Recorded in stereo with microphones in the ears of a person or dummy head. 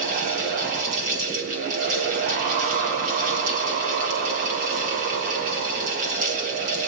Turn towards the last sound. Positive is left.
turn(degrees=-40)  # may be behind; listen again after turning